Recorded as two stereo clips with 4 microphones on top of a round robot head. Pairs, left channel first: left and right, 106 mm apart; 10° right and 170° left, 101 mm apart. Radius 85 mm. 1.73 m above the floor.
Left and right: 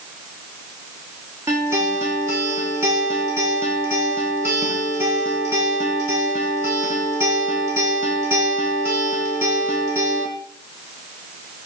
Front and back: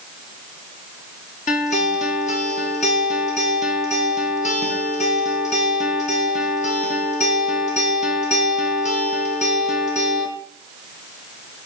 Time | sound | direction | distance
1.5 | a guitar | 15° right | 1.4 m